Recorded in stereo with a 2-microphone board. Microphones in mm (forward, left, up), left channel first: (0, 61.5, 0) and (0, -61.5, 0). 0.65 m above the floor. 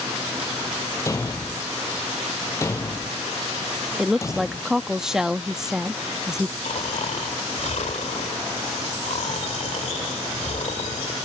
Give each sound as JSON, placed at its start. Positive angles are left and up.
{"t": 1.1, "sound": "a thud", "side_deg": 25}
{"t": 4.0, "sound": "a woman speaking", "side_deg": -5}
{"t": 6.7, "sound": "snoring", "side_deg": 70}